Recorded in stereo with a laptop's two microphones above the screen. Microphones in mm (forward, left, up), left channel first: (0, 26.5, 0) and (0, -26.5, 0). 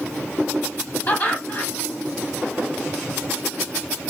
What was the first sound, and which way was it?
Laughter, 40° left (ahead or behind).